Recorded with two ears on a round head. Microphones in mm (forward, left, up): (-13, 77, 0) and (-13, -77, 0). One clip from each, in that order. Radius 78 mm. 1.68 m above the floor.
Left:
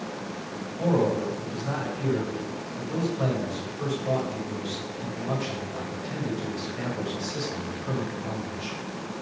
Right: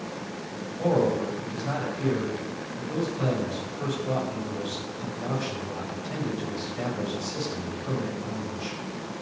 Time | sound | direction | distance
0.8 | a man speaking | 5° left (ahead or behind) | 7.5 m